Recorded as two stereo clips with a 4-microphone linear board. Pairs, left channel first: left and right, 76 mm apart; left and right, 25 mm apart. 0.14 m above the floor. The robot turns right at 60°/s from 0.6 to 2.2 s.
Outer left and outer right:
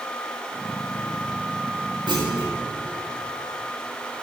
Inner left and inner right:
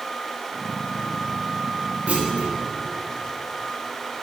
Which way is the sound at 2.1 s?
75° right (ahead or behind).